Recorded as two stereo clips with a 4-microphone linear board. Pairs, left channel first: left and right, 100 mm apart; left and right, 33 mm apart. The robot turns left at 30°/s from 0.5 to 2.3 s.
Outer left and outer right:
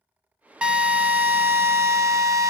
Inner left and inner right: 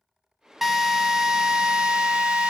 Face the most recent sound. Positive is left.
turn(degrees=-70)